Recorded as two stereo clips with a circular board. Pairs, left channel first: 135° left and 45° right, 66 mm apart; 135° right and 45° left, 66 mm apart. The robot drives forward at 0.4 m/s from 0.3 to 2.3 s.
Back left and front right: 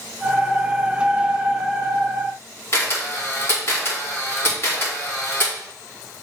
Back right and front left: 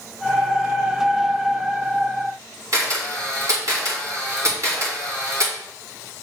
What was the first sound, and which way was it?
A camera shutter, 80° left.